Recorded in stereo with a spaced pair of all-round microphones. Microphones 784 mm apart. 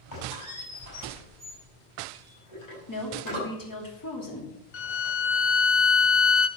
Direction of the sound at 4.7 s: 60° left (ahead or behind).